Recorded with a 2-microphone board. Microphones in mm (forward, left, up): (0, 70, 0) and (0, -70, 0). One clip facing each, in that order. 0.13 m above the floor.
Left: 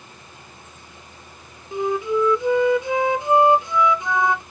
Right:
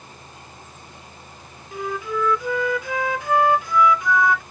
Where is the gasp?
No gasp in this recording.